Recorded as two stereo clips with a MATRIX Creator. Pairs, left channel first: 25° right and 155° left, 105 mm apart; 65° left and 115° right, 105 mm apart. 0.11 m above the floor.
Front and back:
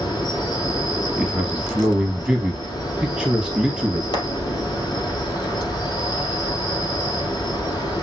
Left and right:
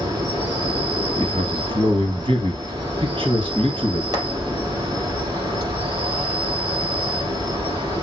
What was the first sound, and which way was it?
An insect, 75° right.